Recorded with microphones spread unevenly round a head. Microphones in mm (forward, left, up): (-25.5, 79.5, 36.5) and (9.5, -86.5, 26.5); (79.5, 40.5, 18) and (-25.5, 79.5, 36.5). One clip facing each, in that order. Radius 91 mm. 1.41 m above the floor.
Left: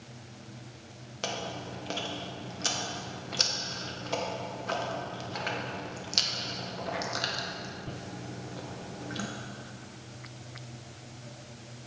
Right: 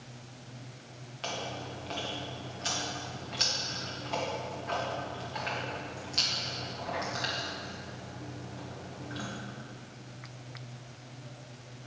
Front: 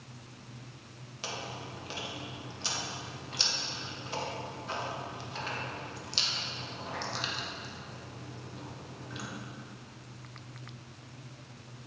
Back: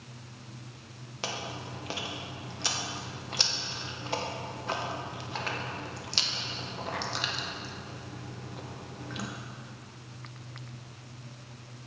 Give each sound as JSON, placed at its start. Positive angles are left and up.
{"t": 1.2, "sound": "chewing", "azimuth_deg": 135, "distance_m": 1.6}